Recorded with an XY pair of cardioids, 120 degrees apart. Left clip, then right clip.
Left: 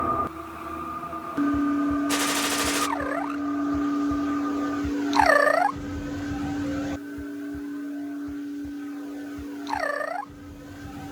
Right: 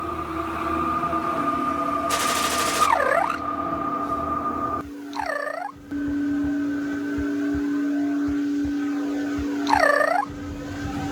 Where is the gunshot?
Straight ahead.